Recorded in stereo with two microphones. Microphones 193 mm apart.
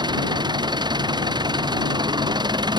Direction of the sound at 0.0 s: 20° right (ahead or behind).